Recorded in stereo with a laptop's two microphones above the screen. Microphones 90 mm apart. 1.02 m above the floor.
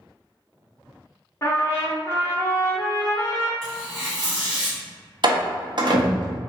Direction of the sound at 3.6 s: 10° right (ahead or behind).